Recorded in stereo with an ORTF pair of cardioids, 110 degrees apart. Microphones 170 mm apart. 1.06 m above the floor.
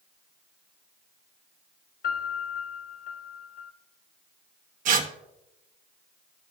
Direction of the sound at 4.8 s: 50° right.